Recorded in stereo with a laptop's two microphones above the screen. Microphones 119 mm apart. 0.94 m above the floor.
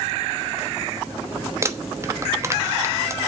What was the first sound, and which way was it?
Crumpling, 25° right (ahead or behind).